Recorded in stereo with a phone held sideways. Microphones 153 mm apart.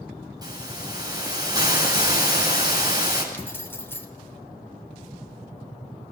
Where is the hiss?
25° right (ahead or behind), 8.5 m.